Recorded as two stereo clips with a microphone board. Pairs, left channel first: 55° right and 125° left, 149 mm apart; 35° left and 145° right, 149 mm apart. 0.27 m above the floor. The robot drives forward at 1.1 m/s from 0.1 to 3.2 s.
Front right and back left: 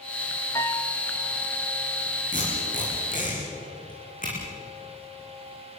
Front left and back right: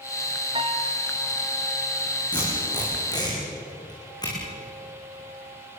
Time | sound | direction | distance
0.6 | a piano | 115° right | 1.1 m
2.3 | tape being pulled | 25° right | 9.5 m